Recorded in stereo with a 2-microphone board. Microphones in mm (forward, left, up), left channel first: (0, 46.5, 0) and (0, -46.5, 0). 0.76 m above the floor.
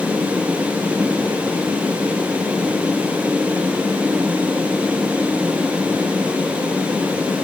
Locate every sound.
Only background noise.